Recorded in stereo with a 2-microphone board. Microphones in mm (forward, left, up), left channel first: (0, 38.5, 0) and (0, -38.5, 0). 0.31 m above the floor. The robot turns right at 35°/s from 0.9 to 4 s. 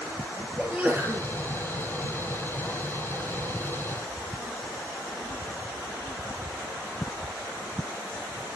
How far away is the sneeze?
About 3.5 m.